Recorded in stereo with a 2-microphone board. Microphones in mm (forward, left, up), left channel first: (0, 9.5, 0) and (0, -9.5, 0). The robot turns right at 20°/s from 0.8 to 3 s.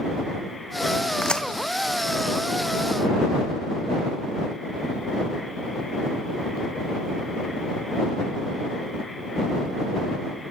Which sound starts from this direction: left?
A crack, at 1.2 s.